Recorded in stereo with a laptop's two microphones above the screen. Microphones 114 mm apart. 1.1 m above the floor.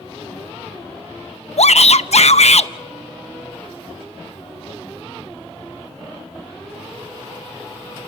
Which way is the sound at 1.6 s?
70° left (ahead or behind).